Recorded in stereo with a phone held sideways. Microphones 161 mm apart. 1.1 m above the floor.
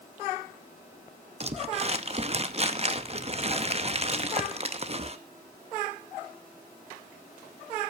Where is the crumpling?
40° right (ahead or behind), 0.8 m.